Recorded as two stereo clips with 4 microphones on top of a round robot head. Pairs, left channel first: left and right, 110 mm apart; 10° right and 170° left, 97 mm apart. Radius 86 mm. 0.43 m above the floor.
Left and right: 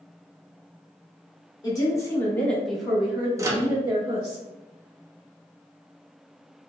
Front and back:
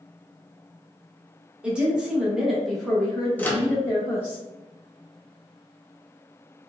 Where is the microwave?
65° right, 0.5 m.